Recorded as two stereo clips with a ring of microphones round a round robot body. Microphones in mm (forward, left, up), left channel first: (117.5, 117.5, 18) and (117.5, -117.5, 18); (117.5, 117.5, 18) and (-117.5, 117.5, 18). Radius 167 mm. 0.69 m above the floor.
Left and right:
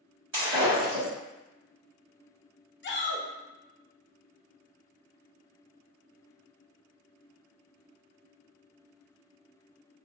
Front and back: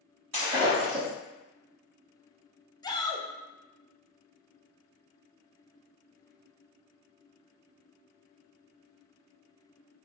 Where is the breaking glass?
135° right, 1.8 m.